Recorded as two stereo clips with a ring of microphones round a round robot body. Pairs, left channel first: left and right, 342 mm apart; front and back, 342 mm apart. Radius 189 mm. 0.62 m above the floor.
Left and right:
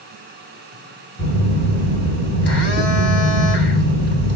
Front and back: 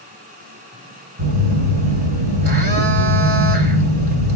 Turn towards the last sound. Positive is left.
turn(degrees=155)